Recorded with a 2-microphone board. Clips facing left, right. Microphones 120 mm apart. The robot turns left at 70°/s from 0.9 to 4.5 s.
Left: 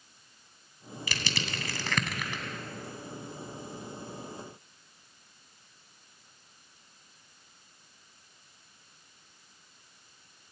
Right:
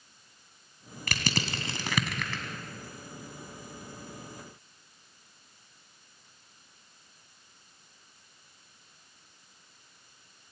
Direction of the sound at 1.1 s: 60° right (ahead or behind).